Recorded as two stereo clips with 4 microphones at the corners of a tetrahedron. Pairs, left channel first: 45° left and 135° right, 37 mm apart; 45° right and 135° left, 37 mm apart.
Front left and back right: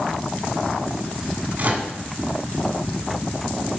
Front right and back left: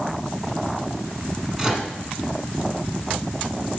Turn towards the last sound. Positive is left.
turn(degrees=-155)